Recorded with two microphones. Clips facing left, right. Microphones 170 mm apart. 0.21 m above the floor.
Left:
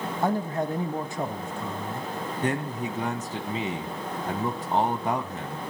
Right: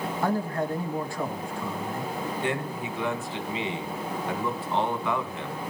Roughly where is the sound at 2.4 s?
Left.